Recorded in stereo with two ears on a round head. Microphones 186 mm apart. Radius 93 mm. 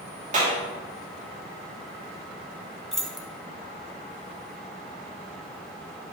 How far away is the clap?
About 2.5 m.